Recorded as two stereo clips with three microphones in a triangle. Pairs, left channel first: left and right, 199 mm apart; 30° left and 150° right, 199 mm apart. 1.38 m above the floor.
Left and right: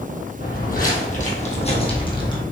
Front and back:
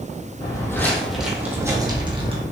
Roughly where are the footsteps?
Left.